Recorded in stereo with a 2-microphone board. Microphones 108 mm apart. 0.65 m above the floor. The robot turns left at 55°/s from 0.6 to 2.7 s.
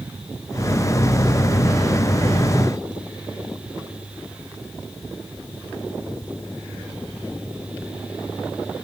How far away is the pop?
I don't hear a pop.